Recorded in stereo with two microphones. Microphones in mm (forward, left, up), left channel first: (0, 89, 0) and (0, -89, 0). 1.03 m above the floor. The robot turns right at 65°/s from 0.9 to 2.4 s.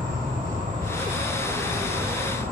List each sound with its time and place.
0.0 s an insect: 135° right, 1.4 m; by 2.5 s 35° right, 1.4 m